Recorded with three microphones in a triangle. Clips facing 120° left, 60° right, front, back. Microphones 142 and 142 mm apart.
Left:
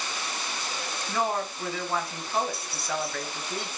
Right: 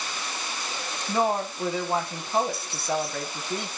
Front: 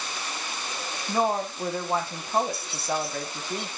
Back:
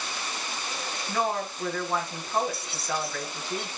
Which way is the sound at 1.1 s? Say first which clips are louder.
Right 4 dB, front 3 dB; 25° right.